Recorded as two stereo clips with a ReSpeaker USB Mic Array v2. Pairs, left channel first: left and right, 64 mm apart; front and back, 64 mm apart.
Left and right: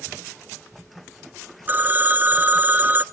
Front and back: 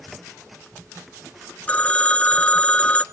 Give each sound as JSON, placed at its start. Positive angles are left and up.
{"t": 1.7, "sound": "a phone ringing", "azimuth_deg": -55, "distance_m": 1.0}